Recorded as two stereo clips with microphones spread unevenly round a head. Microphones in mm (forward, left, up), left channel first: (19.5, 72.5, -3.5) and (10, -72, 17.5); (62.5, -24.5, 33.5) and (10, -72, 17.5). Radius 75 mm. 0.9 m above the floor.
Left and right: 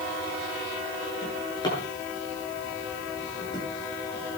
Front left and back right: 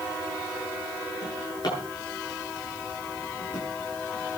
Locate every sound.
1.2 s a drawer: 25° left, 9.5 m